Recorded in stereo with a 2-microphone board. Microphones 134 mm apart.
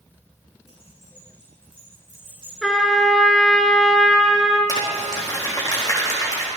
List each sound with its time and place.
0.7 s keys jangling: 45° left (ahead or behind), 5.5 m; by 2.5 s 40° left (ahead or behind), 7 m
2.6 s a trumpet: centre (ahead or behind), 1.6 m
4.7 s crumpling: 25° left (ahead or behind), 4 m